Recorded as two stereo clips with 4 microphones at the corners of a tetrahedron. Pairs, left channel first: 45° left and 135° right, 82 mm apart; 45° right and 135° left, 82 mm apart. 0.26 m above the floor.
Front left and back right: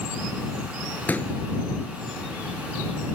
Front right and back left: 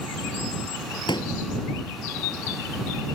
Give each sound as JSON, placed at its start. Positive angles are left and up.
{"t": 1.1, "sound": "a pop", "azimuth_deg": -25}